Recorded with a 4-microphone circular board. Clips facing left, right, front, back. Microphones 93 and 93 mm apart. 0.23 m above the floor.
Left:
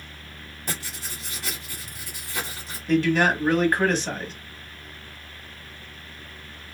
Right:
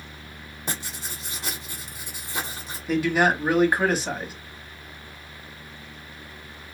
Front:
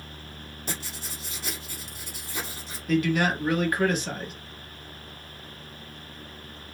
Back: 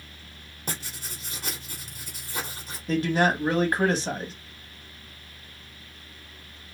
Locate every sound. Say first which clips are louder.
0.7 s writing: right 1 dB, back 1 dB; 150° right, 1.8 m
2.9 s a man speaking: left 1 dB, back 1 dB; 165° right, 1.2 m